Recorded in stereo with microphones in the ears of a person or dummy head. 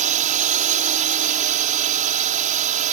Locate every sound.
0.0 s a drone: 35° right (ahead or behind)